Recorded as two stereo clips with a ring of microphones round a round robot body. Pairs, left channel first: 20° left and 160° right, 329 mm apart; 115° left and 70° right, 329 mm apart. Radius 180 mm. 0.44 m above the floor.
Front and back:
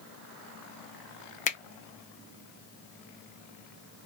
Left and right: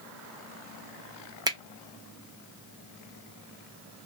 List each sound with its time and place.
1.5 s a finger snap: 5° right, 0.5 m